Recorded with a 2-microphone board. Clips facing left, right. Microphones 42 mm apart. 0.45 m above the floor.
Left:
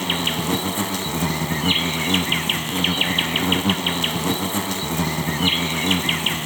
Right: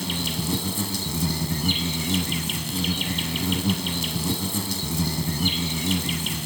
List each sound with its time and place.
0.0 s an insect: 45° left (ahead or behind), 0.7 m